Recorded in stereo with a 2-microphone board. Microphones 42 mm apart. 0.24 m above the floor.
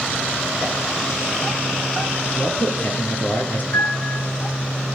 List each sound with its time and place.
2.4 s a man speaking: 50° left (ahead or behind), 5 m
3.7 s a piano: 75° left (ahead or behind), 4.5 m